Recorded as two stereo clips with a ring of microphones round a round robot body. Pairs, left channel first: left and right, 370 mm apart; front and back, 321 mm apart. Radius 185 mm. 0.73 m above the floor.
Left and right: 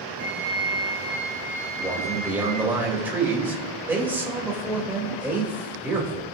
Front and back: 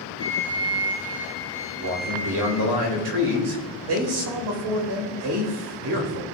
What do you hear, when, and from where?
0.2 s a flute: 175° left, 4 m
1.8 s a man speaking: 175° right, 3 m